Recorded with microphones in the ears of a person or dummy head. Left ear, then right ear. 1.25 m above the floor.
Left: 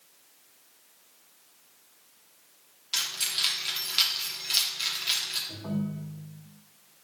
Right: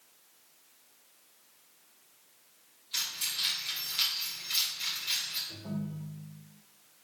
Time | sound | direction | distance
2.9 | keys jangling | 65° left (ahead or behind) | 2 m
5.5 | a ringtone | 85° left | 1.7 m